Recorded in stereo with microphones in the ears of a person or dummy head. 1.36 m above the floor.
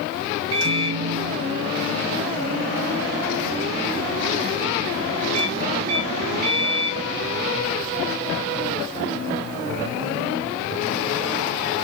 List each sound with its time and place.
0.5 s a microwave: 80° right, 1.1 m